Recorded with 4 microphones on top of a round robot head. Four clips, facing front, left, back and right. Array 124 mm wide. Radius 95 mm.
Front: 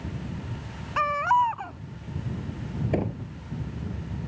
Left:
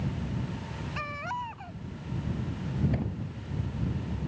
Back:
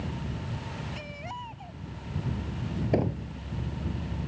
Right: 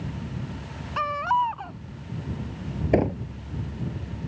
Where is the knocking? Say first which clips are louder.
Right 12 dB, back 1 dB; 95° right.